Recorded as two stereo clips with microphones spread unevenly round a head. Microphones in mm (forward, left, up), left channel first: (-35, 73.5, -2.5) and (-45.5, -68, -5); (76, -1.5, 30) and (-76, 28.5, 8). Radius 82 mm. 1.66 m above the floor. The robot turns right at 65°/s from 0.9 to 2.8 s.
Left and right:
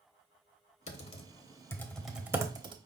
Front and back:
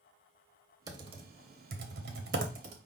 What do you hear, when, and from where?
0.9 s typing on a keyboard: 100° left, 0.8 m; by 2.8 s 140° right, 0.8 m